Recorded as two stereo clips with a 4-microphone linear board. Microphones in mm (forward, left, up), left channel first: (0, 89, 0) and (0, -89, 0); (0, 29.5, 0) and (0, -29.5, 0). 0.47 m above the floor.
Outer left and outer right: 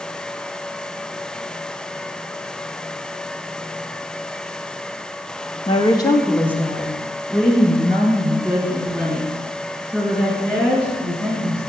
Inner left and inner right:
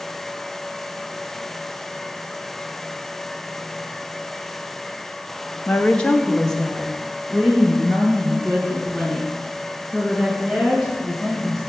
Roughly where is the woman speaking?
Left.